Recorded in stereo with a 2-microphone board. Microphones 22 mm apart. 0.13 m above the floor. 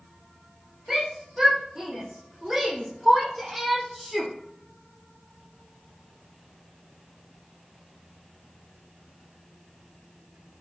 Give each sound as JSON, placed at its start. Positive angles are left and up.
{"t": 0.9, "sound": "a shout", "side_deg": -30, "distance_m": 6.0}